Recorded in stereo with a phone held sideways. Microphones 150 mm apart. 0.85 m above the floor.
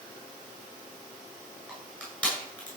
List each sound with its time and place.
1.7 s crushing: 10° left (ahead or behind), 8 m